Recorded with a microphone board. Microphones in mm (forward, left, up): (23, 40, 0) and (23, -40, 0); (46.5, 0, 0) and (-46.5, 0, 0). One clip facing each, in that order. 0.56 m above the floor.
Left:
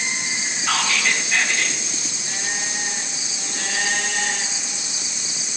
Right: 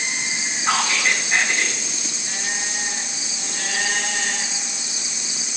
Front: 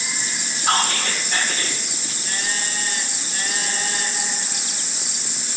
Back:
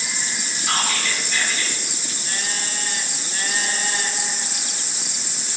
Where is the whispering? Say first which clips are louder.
Right 1 dB, front 4 dB; 30° right, 1.7 m.